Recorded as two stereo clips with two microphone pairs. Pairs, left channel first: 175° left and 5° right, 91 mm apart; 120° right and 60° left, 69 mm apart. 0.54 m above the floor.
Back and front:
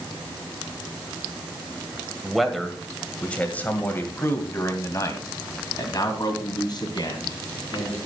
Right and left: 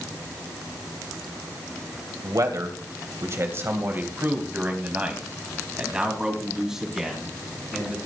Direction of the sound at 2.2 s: 85° left.